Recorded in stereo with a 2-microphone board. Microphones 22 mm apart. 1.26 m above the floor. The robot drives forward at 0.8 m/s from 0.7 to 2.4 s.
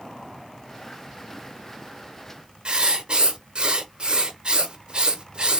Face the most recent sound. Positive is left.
turn(degrees=-45)  # may be behind; listen again after turning